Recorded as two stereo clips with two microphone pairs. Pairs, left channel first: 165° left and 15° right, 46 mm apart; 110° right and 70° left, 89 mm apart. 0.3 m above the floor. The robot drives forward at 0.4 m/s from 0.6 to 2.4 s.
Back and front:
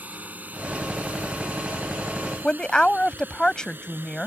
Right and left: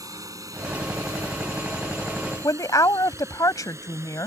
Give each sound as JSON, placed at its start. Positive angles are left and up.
{"t": 0.0, "sound": "a drone", "azimuth_deg": 30}
{"t": 2.4, "sound": "a woman speaking", "azimuth_deg": -130}